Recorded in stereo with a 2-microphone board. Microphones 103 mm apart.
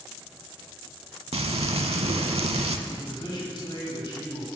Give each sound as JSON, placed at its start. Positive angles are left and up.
{"t": 1.3, "sound": "frying", "side_deg": -85, "distance_m": 0.5}
{"t": 2.9, "sound": "a man speaking", "side_deg": 50, "distance_m": 2.0}